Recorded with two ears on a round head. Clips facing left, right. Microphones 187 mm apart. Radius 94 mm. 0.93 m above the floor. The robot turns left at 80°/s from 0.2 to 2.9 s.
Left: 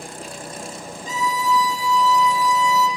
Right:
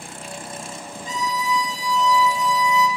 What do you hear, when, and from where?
1.1 s a violin: 90° left, 3 m; by 2.9 s 60° right, 3 m